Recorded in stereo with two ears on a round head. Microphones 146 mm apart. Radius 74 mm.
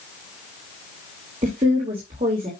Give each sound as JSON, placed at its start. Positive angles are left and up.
{"t": 1.4, "sound": "a woman speaking", "side_deg": -35, "distance_m": 2.5}